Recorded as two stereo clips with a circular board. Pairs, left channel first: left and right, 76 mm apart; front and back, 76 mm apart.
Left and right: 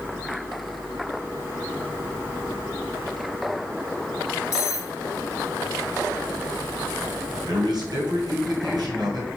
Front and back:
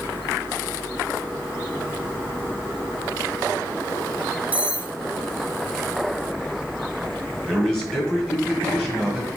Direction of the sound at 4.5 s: 115° left.